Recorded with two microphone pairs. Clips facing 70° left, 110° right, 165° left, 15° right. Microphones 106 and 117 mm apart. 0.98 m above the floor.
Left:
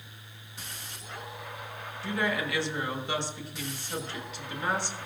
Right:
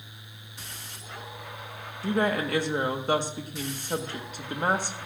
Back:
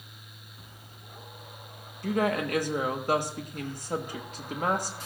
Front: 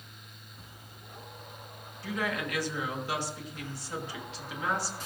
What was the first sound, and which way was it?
A woman speaking, 155° right.